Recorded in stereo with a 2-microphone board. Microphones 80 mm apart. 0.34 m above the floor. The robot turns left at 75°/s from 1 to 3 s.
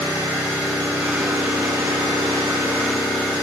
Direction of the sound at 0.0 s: 25° right.